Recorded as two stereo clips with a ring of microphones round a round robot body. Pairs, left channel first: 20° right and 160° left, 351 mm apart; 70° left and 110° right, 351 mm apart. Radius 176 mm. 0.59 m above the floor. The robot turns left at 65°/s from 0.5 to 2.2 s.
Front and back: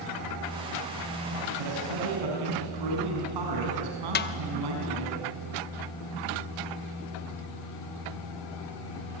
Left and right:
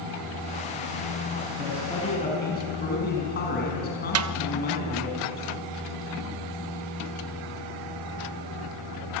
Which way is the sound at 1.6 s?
175° left.